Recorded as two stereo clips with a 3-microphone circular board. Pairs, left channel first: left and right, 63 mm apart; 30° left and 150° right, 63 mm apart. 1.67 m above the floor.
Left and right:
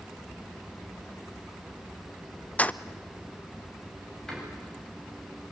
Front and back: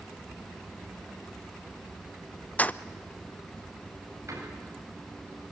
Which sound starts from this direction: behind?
A door slam, at 4.3 s.